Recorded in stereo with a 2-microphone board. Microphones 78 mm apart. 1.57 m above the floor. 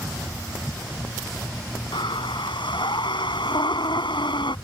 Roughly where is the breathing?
Left.